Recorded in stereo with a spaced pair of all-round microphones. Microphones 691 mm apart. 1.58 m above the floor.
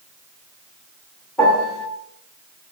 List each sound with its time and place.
1.4 s a piano: centre (ahead or behind), 1.1 m